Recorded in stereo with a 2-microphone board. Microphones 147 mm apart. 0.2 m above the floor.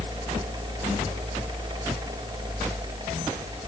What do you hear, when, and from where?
Only background noise.